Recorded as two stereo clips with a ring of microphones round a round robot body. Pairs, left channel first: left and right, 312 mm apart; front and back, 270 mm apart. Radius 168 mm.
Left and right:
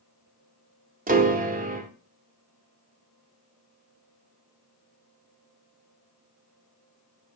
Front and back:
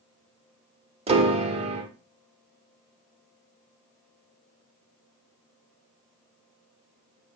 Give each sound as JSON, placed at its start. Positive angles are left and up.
{"t": 1.1, "sound": "a piano", "azimuth_deg": -130, "distance_m": 0.9}